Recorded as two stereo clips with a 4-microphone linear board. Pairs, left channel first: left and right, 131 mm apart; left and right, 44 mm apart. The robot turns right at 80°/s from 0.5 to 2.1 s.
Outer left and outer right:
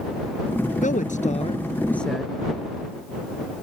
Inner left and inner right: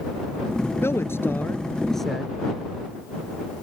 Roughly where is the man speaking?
Left.